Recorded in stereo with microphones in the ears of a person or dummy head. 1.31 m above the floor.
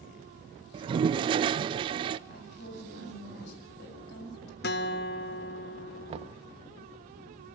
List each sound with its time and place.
0.7 s a toilet flushing: 35° right (ahead or behind), 0.5 m
2.3 s a woman speaking: 65° left (ahead or behind), 7 m
4.6 s a guitar: 45° left (ahead or behind), 0.6 m
6.1 s knocking: 40° right (ahead or behind), 1.0 m